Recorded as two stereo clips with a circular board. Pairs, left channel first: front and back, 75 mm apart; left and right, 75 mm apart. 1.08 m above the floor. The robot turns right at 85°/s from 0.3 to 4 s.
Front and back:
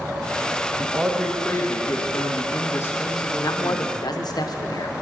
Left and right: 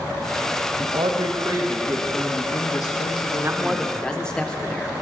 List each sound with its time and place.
0.8 s a man speaking: 120° right, 1.1 m; by 4.4 s 155° left, 1.1 m
3.4 s a man speaking: 40° right, 0.6 m; by 4.9 s 10° left, 0.6 m